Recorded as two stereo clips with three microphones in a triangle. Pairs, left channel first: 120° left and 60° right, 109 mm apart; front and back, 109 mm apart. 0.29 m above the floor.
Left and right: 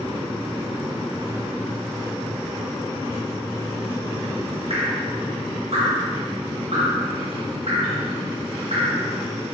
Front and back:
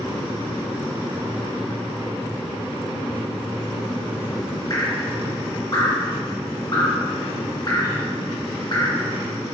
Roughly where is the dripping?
Ahead right.